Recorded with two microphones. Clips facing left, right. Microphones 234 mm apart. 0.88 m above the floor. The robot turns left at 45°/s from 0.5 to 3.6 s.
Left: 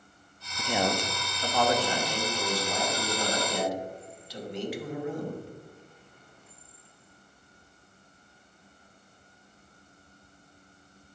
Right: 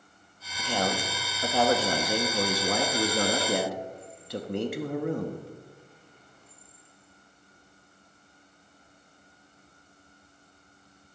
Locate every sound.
0.6 s a man speaking: 15° left, 1.0 m; by 5.4 s 120° right, 1.0 m